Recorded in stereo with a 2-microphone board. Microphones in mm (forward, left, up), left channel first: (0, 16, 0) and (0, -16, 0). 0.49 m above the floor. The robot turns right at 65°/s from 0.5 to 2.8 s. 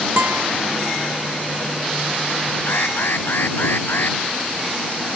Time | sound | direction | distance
0.2 | a guitar | 65° right (ahead or behind) | ?
2.7 | an alarm | 75° left (ahead or behind) | ?